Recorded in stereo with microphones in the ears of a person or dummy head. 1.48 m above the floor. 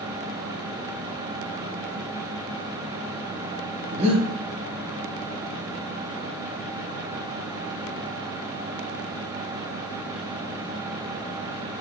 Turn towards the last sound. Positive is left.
turn(degrees=-30)  # may be behind; listen again after turning